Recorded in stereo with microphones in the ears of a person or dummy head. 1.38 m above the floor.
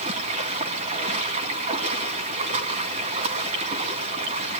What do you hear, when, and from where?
0.0 s running water: 40° right (ahead or behind), 2 m